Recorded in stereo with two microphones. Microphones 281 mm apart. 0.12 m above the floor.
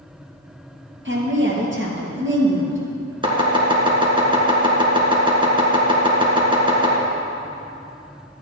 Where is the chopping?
20° right (ahead or behind), 1.8 m.